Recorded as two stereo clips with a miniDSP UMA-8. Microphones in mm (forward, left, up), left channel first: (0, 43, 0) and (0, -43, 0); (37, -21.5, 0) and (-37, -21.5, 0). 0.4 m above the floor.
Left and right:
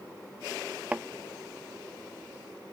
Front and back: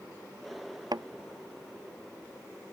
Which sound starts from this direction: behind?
A thud, at 0.9 s.